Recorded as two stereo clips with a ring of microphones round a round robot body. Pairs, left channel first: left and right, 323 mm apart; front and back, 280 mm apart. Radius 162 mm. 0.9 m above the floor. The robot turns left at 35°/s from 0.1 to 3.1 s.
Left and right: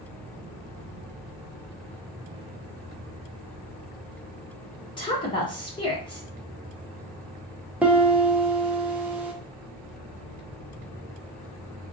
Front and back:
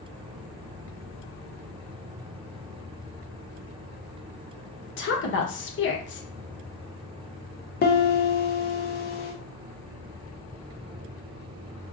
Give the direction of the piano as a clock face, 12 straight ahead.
12 o'clock.